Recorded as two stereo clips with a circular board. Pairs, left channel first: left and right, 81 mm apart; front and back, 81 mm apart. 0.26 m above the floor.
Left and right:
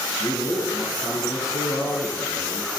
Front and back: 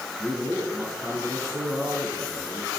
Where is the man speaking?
125° left, 4 m.